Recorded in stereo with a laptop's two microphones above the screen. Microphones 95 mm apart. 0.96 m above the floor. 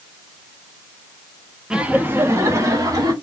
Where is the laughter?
10° right (ahead or behind), 1.1 m; by 3.1 s 45° right (ahead or behind), 2 m.